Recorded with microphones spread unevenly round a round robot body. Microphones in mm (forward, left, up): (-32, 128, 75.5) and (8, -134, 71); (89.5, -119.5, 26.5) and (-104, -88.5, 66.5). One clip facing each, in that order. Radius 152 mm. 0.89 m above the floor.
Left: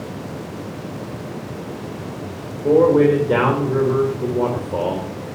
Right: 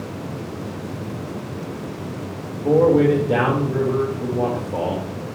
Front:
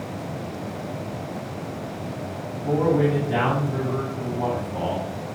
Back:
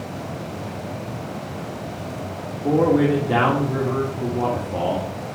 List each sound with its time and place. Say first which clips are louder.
2.6 s a man speaking: left 2 dB, back 4 dB; 170° left, 1.9 m